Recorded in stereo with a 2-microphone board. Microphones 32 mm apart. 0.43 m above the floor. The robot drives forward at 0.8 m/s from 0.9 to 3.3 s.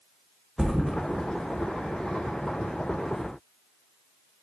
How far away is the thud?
About 0.6 m.